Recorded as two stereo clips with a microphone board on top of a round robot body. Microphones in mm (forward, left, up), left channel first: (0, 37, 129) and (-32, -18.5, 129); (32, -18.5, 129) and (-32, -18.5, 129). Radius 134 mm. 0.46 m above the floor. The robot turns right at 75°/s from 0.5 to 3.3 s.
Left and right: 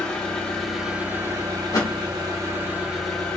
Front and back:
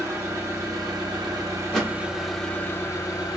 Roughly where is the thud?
Left.